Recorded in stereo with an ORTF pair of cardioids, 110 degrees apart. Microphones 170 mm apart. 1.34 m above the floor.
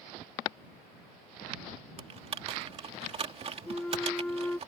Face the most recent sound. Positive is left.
turn(degrees=10)